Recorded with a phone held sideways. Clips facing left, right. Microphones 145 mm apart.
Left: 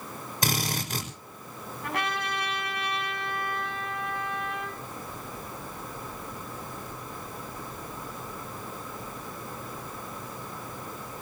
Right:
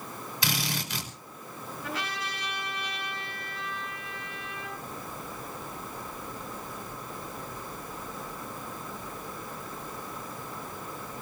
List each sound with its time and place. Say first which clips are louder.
0.4 s a drill: left 3 dB; 45° left (ahead or behind), 5.5 m
1.8 s a trumpet: left 5 dB; 60° left (ahead or behind), 8.5 m